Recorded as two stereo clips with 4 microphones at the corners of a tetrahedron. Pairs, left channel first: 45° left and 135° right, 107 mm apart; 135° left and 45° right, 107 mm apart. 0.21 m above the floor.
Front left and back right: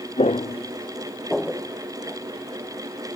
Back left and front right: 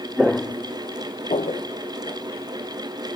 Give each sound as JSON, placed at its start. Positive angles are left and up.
{"t": 0.2, "sound": "footsteps", "azimuth_deg": 40, "distance_m": 1.1}